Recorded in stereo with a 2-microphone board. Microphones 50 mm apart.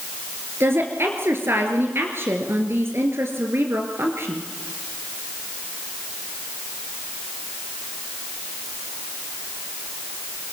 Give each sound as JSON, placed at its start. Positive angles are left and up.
{"t": 0.6, "sound": "a woman speaking", "side_deg": -50, "distance_m": 2.5}